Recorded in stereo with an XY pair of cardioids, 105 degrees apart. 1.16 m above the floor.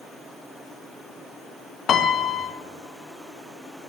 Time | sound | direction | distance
1.9 | a piano | 55° left | 0.5 m